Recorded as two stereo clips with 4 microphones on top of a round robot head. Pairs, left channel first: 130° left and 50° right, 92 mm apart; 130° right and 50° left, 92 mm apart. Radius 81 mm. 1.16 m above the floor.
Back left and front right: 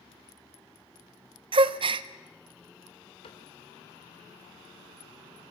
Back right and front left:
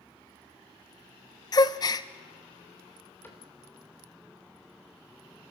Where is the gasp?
80° right, 0.5 m.